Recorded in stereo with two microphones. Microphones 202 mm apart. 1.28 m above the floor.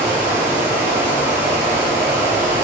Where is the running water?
15° right (ahead or behind), 1.2 m.